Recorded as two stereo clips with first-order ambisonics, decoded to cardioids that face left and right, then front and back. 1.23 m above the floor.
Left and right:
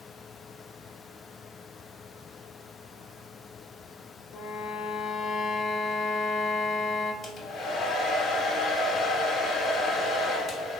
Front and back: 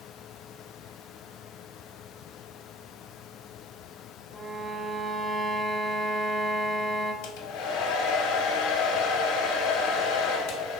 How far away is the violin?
About 0.5 m.